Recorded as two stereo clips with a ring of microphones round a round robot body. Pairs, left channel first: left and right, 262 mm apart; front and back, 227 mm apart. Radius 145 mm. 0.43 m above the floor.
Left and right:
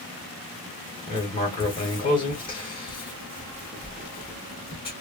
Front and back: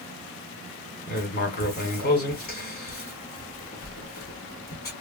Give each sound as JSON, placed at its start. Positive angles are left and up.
{"t": 1.1, "sound": "writing", "azimuth_deg": 25, "distance_m": 1.6}